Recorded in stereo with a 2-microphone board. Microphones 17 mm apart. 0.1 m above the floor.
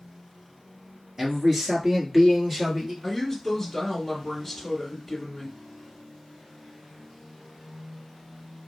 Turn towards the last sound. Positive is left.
turn(degrees=10)  # may be behind; listen again after turning